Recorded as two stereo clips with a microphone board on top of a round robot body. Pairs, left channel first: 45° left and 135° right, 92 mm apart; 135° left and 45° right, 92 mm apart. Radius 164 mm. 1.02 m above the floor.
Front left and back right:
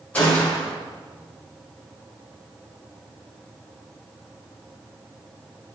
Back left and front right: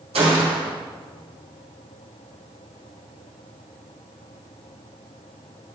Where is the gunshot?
30° right, 1.2 m.